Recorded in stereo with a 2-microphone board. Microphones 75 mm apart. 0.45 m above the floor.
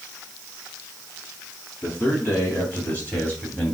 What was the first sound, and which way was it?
A man speaking, 35° left (ahead or behind).